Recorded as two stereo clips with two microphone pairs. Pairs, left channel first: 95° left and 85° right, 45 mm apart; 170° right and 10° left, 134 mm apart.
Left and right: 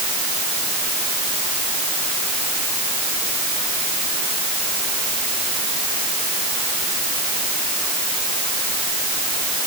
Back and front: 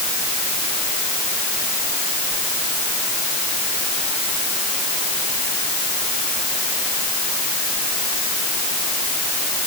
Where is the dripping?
I don't hear dripping.